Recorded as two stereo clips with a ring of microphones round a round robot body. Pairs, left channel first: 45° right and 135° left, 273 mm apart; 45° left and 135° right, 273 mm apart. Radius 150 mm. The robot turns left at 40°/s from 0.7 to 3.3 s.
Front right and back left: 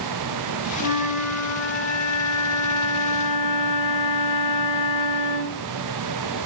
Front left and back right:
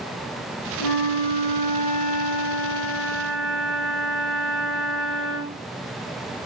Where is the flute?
60° left, 1.0 m; by 5.6 s 40° right, 1.0 m.